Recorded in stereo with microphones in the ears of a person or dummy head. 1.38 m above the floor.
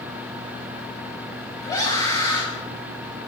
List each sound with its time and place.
1.6 s a scream: 15° left (ahead or behind), 7 m